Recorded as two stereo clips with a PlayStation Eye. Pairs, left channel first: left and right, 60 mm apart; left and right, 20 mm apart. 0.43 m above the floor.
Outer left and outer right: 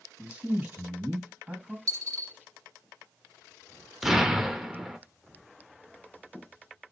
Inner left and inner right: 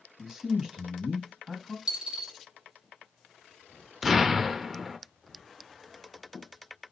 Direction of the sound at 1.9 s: 60° right (ahead or behind).